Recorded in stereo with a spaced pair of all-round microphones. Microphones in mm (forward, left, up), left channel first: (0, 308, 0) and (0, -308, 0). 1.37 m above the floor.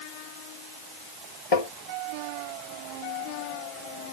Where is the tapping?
60° left (ahead or behind).